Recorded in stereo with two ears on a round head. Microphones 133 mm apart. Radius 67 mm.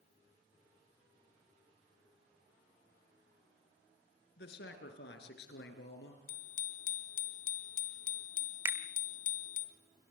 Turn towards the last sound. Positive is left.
turn(degrees=-15)  # may be behind; listen again after turning